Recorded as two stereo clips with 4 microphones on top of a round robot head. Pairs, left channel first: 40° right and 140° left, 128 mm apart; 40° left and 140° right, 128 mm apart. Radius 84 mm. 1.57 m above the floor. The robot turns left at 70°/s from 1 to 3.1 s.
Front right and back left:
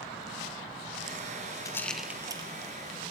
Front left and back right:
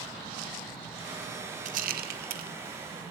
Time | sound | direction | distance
1.6 | a rattle | 105° right | 1.7 m